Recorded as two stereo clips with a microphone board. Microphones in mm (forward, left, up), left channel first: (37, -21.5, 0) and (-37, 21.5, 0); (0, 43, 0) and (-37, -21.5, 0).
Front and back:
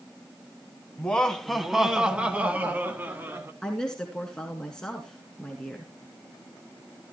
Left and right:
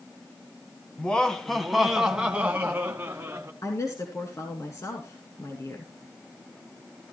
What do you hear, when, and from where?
1.0 s laughter: 20° left, 1.2 m; by 3.5 s 165° right, 1.7 m
3.6 s a woman speaking: 50° left, 2.0 m